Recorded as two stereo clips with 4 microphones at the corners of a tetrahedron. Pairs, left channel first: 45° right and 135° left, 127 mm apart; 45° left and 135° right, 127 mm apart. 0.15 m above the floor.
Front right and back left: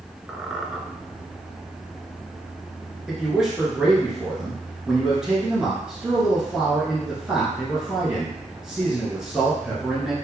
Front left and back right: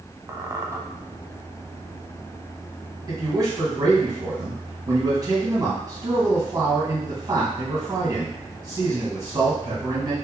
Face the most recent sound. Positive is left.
turn(degrees=-145)